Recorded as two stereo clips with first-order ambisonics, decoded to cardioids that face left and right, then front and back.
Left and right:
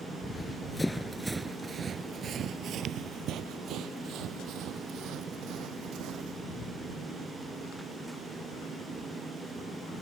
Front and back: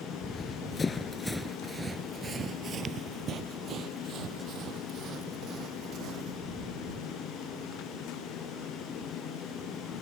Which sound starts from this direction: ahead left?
Running footsteps, at 0.2 s.